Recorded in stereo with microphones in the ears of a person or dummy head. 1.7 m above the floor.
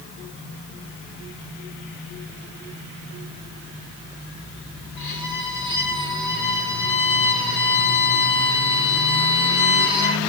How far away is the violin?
About 9 m.